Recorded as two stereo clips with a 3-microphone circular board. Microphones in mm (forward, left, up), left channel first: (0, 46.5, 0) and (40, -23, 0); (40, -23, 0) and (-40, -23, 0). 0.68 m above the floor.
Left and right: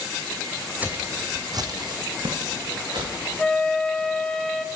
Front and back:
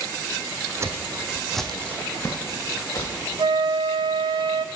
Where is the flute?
160° right, 0.6 m.